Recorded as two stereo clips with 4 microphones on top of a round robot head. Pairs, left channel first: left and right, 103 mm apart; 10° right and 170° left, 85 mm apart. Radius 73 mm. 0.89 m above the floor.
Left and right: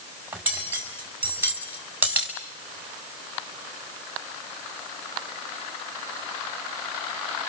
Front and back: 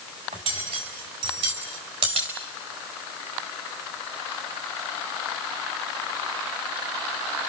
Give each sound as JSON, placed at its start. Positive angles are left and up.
{"t": 0.3, "sound": "cutlery clinking", "azimuth_deg": -160, "distance_m": 5.0}